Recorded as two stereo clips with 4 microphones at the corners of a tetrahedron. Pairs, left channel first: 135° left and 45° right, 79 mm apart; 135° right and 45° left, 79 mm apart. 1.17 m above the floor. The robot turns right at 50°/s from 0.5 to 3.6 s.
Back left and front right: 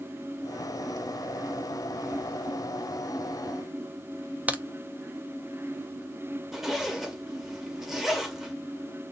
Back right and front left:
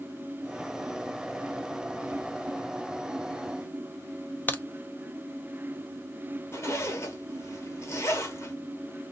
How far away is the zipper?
About 1.0 m.